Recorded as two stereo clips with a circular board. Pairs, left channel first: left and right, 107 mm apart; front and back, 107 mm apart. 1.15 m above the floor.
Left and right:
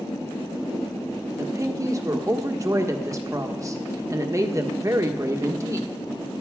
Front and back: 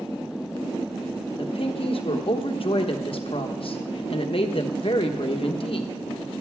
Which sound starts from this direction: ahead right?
A woman speaking, at 1.4 s.